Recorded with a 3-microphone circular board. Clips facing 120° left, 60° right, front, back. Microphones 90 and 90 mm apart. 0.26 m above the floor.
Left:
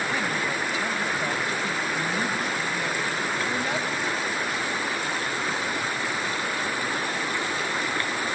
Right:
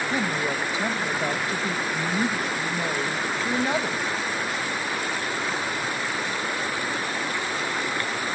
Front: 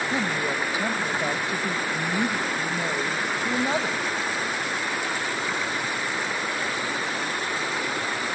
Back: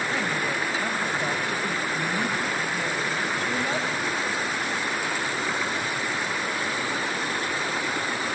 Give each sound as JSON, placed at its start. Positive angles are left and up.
{"t": 0.1, "sound": "a woman speaking", "azimuth_deg": -40, "distance_m": 0.9}